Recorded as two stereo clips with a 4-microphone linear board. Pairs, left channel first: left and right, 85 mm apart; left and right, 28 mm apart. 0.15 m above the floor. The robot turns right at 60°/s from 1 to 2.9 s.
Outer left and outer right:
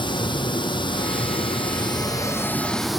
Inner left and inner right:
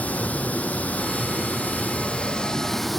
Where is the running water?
65° left, 1.0 m; by 3.0 s straight behind, 1.0 m.